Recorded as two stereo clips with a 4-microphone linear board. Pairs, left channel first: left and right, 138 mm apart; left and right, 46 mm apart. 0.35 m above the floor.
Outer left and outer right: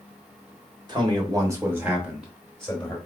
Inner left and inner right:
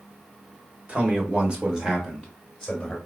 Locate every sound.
0.9 s a man speaking: 35° right (ahead or behind), 1.1 m; by 3.0 s 10° left (ahead or behind), 1.3 m